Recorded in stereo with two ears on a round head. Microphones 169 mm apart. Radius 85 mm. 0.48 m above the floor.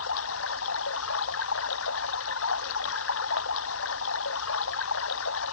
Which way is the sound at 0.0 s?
75° left (ahead or behind).